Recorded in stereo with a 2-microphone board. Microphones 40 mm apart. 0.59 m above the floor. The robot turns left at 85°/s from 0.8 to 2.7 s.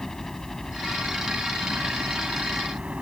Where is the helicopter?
10° left; by 3.0 s 150° right.